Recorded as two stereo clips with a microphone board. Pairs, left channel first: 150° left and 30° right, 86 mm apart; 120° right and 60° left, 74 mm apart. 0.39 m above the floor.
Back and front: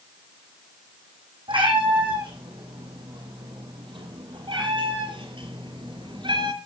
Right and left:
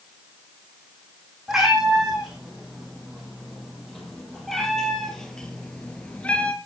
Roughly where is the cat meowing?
Ahead right.